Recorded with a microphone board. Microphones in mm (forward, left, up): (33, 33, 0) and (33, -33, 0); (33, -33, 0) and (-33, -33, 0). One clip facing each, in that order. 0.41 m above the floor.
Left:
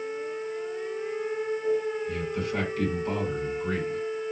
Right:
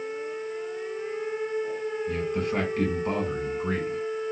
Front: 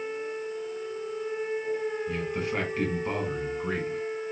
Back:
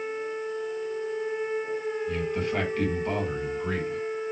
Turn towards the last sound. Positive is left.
turn(degrees=-80)